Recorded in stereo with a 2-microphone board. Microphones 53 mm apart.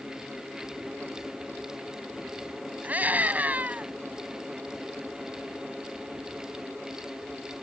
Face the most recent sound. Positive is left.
turn(degrees=-30)  # may be behind; listen again after turning